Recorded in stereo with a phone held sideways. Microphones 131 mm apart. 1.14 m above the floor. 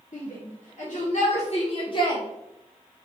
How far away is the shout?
About 2 m.